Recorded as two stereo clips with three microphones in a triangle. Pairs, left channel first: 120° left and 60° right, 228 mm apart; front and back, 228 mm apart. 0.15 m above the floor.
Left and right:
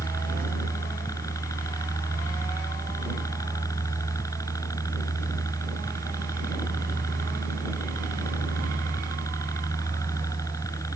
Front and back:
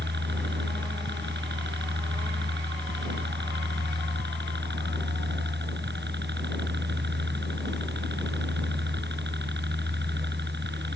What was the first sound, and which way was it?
A helicopter, 170° right.